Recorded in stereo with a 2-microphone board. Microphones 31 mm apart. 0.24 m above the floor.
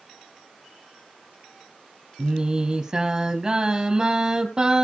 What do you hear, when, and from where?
2.2 s singing: 20° right (ahead or behind), 3 m